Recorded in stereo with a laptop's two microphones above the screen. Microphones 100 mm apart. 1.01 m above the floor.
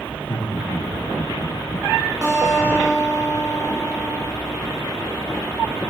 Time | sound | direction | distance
0.1 | laughter | 40° left (ahead or behind) | 2.0 m
2.2 | a guitar | 45° right (ahead or behind) | 4 m